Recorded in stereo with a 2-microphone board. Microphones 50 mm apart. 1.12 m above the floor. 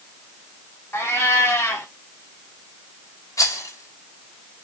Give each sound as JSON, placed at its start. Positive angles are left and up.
{"t": 0.9, "sound": "a cat meowing", "side_deg": 50, "distance_m": 5.0}
{"t": 3.4, "sound": "a rattle", "side_deg": 90, "distance_m": 4.0}